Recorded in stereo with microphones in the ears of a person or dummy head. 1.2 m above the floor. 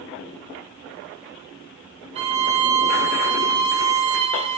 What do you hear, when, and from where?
2.1 s a violin: 30° right (ahead or behind), 1.0 m